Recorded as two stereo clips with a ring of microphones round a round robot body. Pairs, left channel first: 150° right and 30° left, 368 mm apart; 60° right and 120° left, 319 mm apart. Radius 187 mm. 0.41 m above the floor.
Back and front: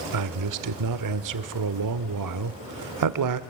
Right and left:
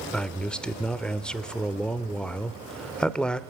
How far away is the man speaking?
About 1.1 m.